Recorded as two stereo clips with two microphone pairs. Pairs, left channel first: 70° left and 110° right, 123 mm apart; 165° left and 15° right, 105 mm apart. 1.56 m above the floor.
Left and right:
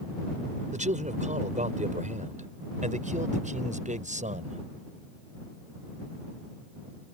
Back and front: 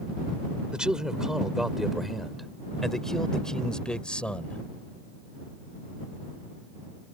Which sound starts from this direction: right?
A man speaking, at 0.7 s.